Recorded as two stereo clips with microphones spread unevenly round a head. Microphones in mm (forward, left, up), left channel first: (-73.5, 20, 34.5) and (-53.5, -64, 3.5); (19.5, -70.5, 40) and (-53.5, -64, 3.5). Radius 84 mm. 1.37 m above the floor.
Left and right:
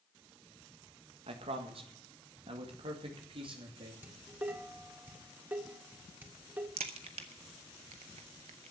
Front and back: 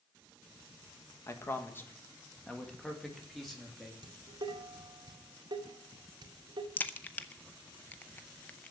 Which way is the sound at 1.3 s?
60° right.